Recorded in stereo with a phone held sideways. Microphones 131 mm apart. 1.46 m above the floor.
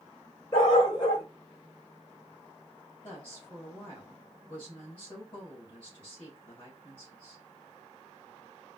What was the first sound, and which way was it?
A dog barking, 40° left (ahead or behind).